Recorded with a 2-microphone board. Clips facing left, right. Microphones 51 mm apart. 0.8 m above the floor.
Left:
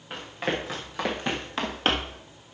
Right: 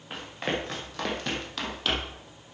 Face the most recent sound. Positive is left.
turn(degrees=55)  # may be behind; listen again after turning